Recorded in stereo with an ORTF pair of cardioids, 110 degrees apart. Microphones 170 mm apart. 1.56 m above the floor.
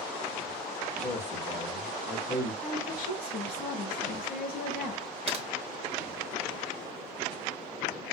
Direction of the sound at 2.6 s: 70° left.